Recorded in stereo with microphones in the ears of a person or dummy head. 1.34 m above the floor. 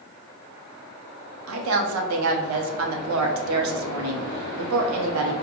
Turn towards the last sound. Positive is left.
turn(degrees=-75)  # may be behind; listen again after turning